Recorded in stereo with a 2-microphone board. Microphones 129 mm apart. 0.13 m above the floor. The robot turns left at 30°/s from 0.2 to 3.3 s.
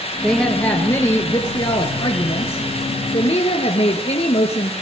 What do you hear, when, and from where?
0.2 s a woman speaking: 175° left, 1.8 m; by 4.7 s 85° left, 1.8 m